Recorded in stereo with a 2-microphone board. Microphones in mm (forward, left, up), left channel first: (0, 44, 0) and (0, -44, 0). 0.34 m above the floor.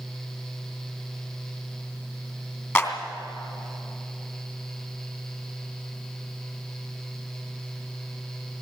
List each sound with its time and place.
2.8 s a clap: 25° left (ahead or behind), 2.5 m